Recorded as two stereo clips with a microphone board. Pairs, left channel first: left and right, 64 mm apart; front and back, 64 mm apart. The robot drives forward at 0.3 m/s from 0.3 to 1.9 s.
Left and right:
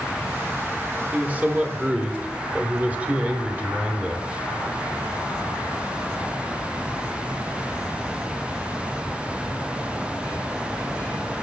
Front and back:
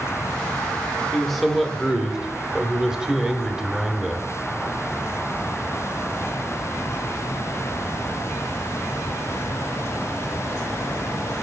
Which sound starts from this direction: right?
A man speaking, at 1.1 s.